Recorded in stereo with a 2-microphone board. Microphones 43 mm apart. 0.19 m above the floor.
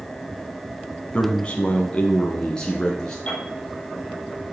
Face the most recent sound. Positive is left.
turn(degrees=25)  # may be behind; listen again after turning